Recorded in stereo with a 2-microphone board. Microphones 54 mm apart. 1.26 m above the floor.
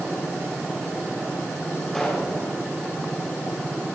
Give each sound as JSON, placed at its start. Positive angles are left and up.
{"t": 1.9, "sound": "a pop", "side_deg": 15, "distance_m": 5.5}